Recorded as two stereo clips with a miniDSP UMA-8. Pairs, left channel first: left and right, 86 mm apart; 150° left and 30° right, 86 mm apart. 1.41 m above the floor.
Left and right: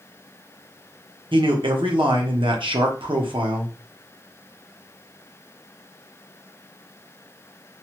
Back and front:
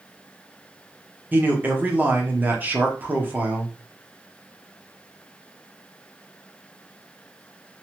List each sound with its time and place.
1.3 s a man speaking: 100° right, 0.8 m